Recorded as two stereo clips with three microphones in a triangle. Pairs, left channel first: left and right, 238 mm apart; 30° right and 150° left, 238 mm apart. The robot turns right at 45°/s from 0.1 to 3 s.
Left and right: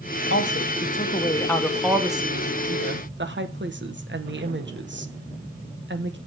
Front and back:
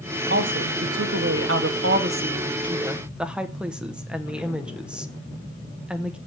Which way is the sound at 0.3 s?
115° left.